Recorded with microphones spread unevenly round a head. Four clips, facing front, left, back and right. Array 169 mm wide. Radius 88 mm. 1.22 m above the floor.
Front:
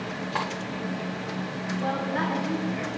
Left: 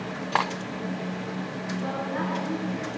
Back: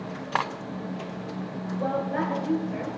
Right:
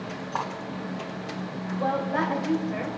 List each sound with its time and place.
0.3 s cutlery clinking: 115° left, 0.6 m
1.8 s a woman speaking: 130° right, 5 m